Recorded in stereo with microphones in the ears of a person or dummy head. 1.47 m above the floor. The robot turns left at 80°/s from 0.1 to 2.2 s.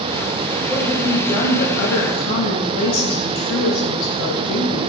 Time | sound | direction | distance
0.7 | a woman speaking | 160° right | 2.5 m